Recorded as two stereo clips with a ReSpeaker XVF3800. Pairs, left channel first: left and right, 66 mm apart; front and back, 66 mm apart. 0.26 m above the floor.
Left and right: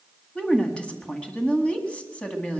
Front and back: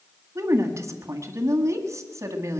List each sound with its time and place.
0.3 s a woman speaking: 160° left, 1.8 m